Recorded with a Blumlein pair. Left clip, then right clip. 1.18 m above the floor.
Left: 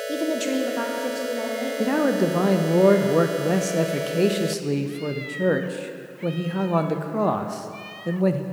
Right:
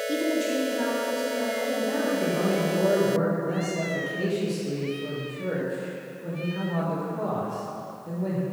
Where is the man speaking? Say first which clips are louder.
Left 4 dB; 35° left, 0.6 m.